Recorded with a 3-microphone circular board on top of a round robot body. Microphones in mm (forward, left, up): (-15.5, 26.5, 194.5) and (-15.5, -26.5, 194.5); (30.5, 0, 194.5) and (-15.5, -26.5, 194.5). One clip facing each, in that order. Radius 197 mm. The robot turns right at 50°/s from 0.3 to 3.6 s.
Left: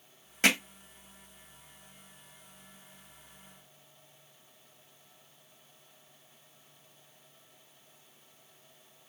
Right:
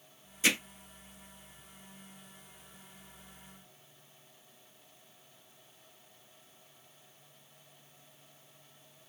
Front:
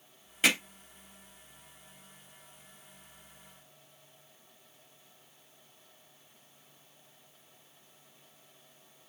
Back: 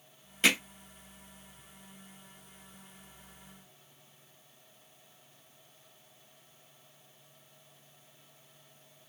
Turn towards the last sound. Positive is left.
turn(degrees=-90)